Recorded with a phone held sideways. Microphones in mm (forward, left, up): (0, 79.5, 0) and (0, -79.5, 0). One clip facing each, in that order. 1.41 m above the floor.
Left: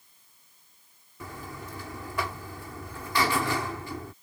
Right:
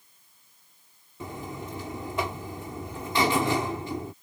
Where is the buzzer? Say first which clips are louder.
Right 4 dB; 20° right (ahead or behind).